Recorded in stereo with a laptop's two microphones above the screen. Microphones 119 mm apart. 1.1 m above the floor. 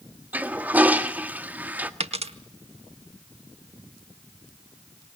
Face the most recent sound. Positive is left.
turn(degrees=-60)  # may be behind; listen again after turning